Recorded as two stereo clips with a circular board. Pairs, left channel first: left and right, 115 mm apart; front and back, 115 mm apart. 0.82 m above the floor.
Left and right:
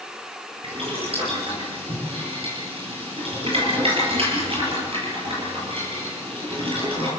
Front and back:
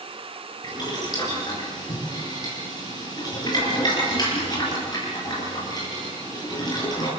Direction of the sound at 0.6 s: 55° right.